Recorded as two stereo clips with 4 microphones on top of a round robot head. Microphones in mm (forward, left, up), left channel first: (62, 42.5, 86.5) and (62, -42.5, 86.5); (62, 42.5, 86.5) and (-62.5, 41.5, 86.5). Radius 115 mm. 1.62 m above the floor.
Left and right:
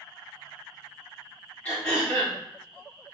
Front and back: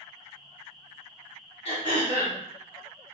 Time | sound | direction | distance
1.6 | throat clearing | 25° left | 1.8 m